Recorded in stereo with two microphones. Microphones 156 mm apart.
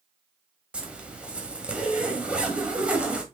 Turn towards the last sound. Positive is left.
turn(degrees=-10)  # may be behind; listen again after turning